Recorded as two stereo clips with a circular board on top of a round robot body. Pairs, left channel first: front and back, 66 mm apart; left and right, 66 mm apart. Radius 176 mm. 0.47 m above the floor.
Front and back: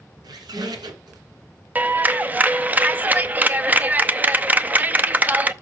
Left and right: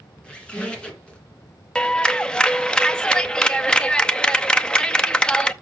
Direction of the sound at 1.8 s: 150° left.